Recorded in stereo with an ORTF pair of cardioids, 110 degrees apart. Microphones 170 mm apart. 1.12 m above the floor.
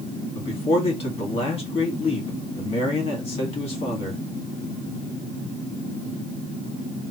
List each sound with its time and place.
0.3 s a man speaking: 35° left, 1.7 m